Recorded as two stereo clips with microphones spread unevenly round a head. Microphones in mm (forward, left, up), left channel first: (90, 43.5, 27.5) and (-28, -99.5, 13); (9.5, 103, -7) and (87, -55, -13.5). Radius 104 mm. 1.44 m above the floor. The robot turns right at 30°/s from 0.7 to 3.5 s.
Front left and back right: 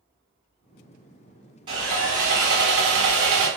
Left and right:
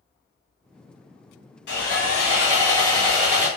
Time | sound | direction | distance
1.7 | sawing | 160° left | 0.8 m